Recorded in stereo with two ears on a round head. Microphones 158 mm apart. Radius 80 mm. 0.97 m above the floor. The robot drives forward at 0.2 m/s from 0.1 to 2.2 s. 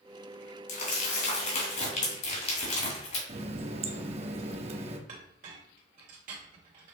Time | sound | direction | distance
0.7 | crumpling | 45° left (ahead or behind) | 2.0 m
3.3 | a running tap | 35° right (ahead or behind) | 0.6 m
5.1 | a clink | 50° right (ahead or behind) | 1.6 m